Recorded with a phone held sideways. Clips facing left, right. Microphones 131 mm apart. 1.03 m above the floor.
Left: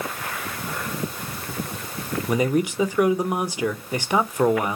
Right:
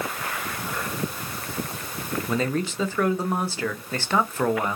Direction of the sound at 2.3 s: 15° left (ahead or behind).